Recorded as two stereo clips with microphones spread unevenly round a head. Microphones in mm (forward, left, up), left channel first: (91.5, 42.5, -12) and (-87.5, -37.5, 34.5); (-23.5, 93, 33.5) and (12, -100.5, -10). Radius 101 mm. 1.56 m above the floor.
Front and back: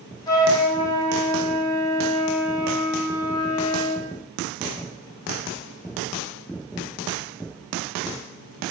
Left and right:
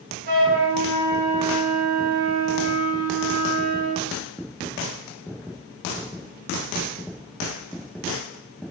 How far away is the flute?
About 0.7 m.